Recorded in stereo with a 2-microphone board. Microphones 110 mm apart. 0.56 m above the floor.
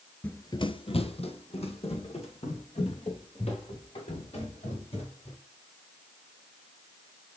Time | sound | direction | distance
0.2 | running footsteps | 15° left (ahead or behind) | 0.5 m